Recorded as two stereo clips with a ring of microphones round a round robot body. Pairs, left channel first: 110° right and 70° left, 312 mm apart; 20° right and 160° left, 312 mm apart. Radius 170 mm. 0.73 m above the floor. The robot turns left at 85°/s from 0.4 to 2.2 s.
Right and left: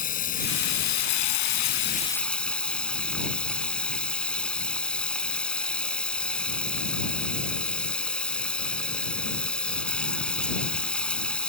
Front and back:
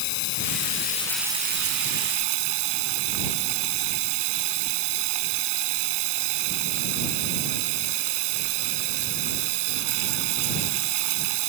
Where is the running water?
45° right; by 11.5 s 160° left.